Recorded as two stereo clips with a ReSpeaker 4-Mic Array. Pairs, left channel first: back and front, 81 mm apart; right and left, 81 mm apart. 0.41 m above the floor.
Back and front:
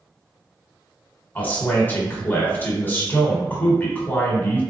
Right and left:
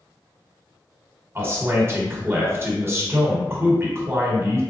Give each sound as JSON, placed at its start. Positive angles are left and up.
{"t": 1.4, "sound": "a man speaking", "azimuth_deg": 130, "distance_m": 1.2}